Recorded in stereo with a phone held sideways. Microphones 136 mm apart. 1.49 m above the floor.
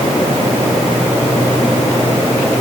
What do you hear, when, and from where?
Only background noise.